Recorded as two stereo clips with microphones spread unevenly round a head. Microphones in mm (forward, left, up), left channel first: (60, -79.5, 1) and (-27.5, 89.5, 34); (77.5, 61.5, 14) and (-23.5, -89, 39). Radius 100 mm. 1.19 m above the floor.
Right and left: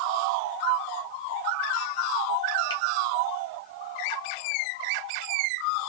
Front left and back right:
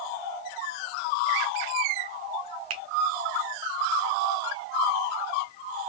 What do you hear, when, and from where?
2.7 s a finger snap: 135° right, 0.5 m